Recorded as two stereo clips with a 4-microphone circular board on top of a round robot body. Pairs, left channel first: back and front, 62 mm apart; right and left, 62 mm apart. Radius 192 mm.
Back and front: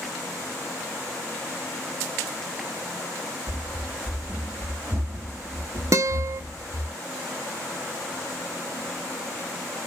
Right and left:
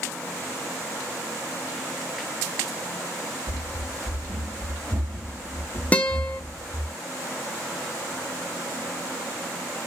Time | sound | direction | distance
3.5 | running footsteps | 115° left | 0.8 m
5.9 | a guitar | 25° right | 0.5 m